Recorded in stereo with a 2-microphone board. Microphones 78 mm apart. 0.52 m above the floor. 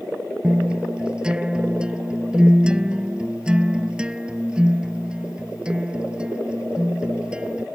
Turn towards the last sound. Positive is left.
turn(degrees=-10)  # may be behind; listen again after turning